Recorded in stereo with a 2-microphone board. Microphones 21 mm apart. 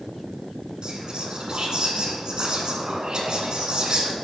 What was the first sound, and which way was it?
Whispering, 45° right (ahead or behind).